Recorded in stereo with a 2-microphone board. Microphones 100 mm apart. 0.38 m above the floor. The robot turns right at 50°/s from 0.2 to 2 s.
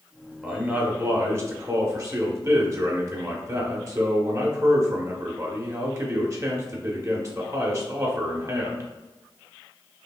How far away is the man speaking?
About 0.9 m.